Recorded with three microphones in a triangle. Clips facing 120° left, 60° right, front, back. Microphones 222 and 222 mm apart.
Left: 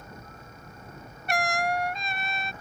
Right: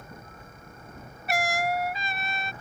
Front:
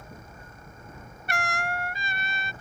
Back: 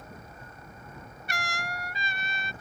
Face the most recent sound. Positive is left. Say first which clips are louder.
# even, front 6 dB
turn(degrees=25)